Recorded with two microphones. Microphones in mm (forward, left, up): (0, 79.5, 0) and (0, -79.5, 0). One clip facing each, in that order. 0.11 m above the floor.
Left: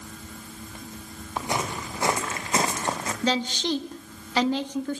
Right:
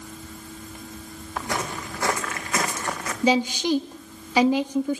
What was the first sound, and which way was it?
Footsteps, 20° left (ahead or behind).